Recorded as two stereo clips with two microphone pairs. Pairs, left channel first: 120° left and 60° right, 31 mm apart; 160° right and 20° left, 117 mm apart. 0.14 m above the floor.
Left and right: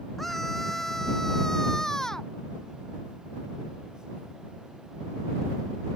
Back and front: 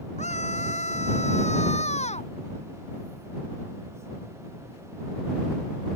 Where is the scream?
160° right; by 2.3 s 175° right.